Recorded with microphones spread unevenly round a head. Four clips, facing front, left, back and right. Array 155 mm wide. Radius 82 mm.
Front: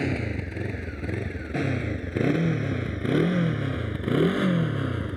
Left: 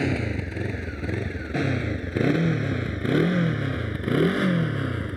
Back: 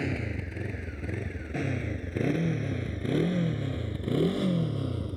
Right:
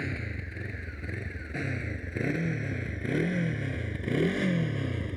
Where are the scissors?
I don't hear scissors.